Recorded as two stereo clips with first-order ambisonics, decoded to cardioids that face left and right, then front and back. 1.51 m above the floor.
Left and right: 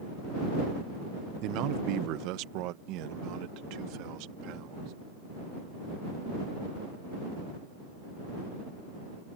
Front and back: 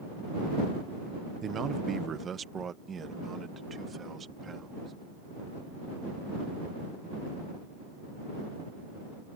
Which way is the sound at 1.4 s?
115° right.